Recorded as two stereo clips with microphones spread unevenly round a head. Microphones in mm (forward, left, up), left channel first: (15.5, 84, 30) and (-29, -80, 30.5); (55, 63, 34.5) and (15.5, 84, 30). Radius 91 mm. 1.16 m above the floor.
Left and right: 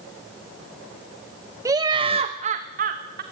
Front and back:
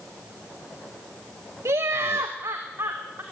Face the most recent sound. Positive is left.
turn(degrees=-145)